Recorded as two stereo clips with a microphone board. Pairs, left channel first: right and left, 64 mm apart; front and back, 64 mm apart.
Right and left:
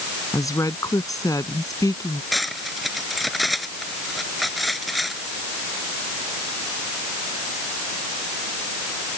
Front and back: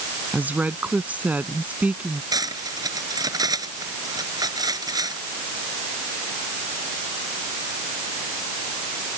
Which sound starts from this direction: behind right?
A woman speaking, at 0.3 s.